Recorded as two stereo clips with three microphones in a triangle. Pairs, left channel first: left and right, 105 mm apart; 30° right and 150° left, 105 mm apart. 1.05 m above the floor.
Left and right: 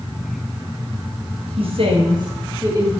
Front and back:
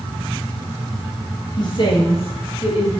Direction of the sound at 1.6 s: 75° right.